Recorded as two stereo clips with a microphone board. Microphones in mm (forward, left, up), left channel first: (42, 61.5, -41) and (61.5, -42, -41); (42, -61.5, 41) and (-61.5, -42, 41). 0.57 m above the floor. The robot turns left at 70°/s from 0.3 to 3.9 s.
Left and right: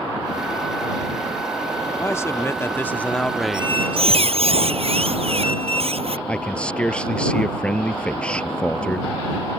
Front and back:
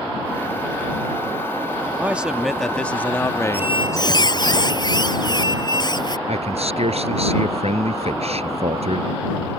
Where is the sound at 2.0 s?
115° left; by 4.5 s 20° right.